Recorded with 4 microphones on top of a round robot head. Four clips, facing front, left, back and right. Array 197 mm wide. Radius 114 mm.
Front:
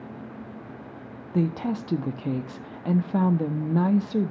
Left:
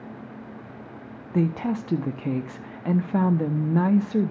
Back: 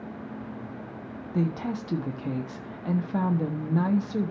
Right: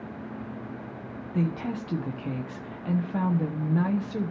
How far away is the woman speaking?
About 0.9 m.